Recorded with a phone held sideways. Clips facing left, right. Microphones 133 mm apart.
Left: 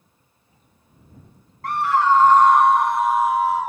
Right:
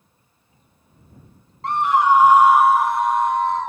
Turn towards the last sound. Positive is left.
turn(degrees=10)  # may be behind; listen again after turning